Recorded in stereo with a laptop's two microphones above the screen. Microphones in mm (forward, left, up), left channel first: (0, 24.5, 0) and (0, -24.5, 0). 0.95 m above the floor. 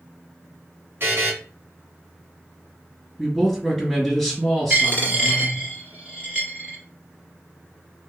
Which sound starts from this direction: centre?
A man speaking, at 3.2 s.